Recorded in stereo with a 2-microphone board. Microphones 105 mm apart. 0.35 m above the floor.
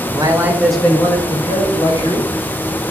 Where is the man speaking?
40° right (ahead or behind), 1.0 m; by 2.3 s 45° left (ahead or behind), 2 m.